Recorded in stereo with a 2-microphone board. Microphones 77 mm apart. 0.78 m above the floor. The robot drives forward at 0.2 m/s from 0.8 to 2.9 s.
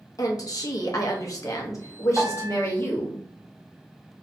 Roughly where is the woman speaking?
Left.